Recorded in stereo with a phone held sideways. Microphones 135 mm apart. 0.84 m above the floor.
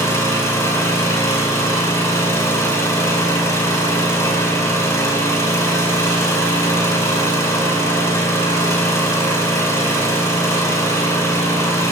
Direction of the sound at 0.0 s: 25° left (ahead or behind).